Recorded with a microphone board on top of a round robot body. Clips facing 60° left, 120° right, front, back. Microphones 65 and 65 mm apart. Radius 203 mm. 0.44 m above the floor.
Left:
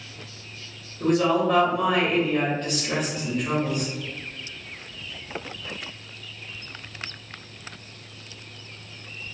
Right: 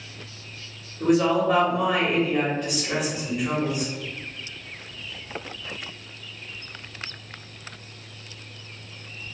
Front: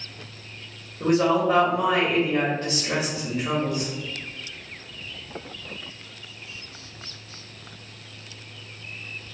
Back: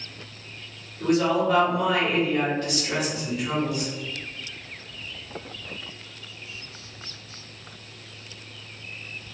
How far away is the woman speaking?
About 1.3 m.